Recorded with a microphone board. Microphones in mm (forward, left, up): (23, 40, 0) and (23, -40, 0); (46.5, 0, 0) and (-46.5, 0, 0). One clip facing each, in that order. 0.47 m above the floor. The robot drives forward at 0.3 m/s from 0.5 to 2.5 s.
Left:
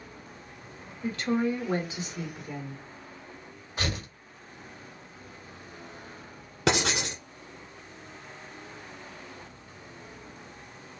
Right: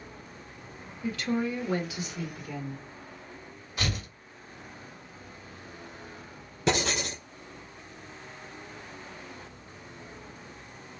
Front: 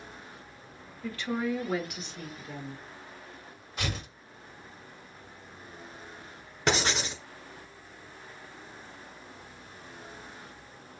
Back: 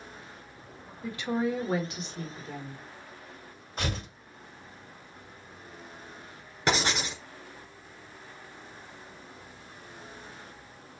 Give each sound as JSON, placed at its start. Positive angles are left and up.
{"t": 1.0, "sound": "a woman speaking", "azimuth_deg": 115, "distance_m": 1.0}
{"t": 3.8, "sound": "tearing paper", "azimuth_deg": 140, "distance_m": 1.9}
{"t": 6.7, "sound": "writing", "azimuth_deg": 90, "distance_m": 1.4}